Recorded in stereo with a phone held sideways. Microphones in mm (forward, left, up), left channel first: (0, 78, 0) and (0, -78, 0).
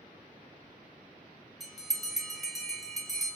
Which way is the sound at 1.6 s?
Centre (ahead or behind).